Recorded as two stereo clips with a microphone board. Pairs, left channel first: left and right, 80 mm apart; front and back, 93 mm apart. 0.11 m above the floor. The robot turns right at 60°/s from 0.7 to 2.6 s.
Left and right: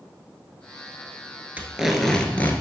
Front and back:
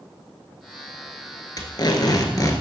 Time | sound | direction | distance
1.6 | tape being pulled | 25° right | 1.0 m